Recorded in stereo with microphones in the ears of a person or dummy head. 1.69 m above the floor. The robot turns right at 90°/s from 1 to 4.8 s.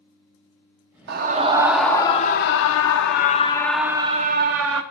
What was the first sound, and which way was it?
A scream, 65° right.